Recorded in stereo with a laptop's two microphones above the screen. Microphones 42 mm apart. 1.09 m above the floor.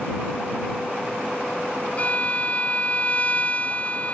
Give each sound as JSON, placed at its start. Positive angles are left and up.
{"t": 2.0, "sound": "a violin", "side_deg": 35}